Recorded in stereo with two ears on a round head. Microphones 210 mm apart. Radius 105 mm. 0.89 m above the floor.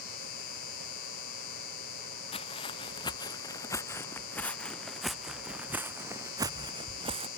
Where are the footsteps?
25° left (ahead or behind); by 7.3 s 25° right (ahead or behind).